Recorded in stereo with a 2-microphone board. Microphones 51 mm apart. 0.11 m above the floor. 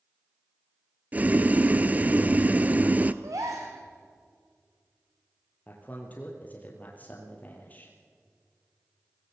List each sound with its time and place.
1.1 s boiling: 30° right (ahead or behind), 0.6 m
3.2 s a gasp: 80° right, 3.5 m
5.7 s a man speaking: 30° left (ahead or behind), 2.5 m